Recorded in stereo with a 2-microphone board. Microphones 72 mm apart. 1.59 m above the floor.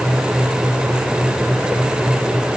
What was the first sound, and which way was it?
Only background noise.